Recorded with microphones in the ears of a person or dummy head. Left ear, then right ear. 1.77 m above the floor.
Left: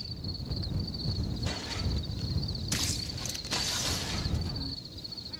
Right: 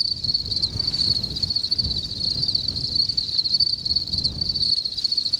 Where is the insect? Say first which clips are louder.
Right 18 dB; 60° right (ahead or behind).